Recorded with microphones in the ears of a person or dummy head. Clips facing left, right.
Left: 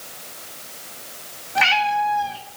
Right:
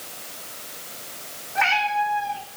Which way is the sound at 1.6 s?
50° left (ahead or behind).